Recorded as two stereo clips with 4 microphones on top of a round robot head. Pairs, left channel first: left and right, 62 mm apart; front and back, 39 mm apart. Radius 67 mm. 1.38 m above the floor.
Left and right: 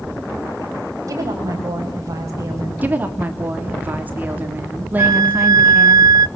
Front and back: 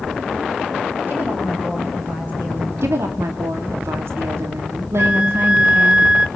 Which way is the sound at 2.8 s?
155° right.